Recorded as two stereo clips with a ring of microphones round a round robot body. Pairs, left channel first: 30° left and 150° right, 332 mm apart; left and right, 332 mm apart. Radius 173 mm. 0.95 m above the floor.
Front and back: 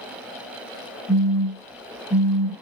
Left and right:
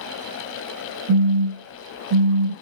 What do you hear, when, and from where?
1.1 s a phone buzzing: 45° right, 0.9 m